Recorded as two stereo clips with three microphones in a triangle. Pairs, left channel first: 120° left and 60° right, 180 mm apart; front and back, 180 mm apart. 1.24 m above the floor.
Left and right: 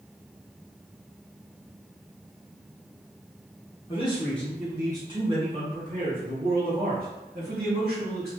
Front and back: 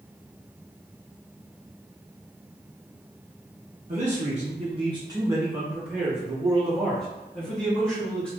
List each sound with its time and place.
3.9 s a man speaking: 160° left, 0.7 m; by 8.3 s 85° right, 2.5 m